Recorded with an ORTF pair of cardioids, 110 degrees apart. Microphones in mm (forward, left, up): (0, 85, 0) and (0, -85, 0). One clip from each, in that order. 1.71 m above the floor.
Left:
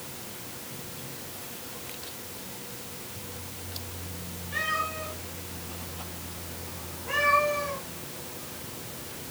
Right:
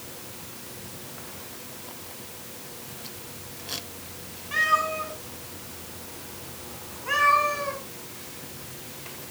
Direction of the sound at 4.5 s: 70° right.